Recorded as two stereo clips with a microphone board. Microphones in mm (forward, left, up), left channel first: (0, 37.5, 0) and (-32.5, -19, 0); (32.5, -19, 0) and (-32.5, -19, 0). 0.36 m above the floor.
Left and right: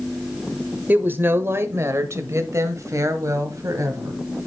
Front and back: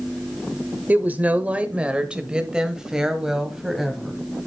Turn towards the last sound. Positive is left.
turn(degrees=-95)